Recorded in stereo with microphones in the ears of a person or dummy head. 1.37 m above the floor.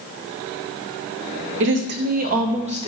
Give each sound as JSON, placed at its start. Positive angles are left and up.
{"t": 1.6, "sound": "a woman speaking", "side_deg": -60, "distance_m": 1.0}